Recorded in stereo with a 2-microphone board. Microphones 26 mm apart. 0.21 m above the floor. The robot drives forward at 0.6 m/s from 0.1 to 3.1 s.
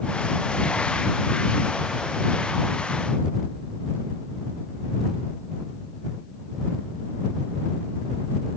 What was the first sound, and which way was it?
Only background noise.